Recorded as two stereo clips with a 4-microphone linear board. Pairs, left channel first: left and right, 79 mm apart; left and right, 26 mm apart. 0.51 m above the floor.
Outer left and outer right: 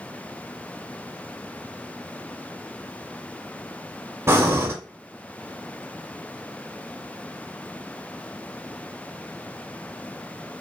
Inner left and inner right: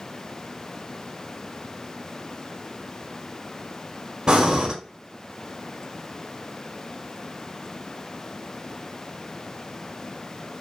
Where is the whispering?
I don't hear whispering.